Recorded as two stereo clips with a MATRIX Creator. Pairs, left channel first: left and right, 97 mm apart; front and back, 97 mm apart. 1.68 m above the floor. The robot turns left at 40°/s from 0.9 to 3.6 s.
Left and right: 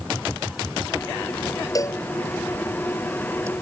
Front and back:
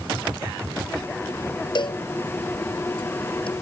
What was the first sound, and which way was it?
A cowbell, 40° left.